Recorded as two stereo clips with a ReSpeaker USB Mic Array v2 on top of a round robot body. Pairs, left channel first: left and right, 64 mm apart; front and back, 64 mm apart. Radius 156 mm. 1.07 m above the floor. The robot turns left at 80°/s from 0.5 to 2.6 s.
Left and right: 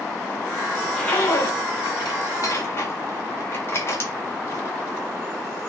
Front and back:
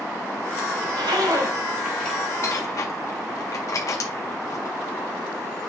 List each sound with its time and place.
0.8 s a zipper: 175° right, 1.8 m; by 4.8 s 40° left, 1.8 m